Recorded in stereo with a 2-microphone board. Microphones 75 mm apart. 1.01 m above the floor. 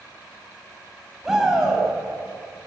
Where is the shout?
5° right (ahead or behind), 8 m.